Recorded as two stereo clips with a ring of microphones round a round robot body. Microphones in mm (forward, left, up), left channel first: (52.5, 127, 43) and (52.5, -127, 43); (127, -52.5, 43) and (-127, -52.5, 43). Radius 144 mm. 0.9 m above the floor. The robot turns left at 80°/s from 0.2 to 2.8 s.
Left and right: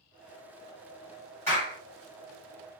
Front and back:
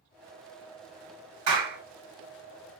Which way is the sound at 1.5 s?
170° left.